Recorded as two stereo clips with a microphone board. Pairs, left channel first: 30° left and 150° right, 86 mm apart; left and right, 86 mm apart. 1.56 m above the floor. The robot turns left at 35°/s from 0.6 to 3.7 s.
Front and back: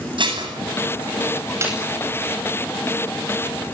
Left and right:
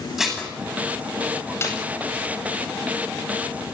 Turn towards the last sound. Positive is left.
turn(degrees=80)